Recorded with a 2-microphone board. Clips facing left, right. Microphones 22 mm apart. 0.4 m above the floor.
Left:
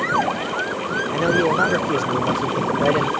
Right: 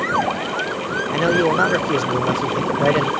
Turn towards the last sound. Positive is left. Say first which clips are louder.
# right 2 dB
turn(degrees=-20)  # may be behind; listen again after turning